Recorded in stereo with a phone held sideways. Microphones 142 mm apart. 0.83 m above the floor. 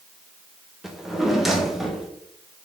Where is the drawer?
Centre (ahead or behind), 0.5 m.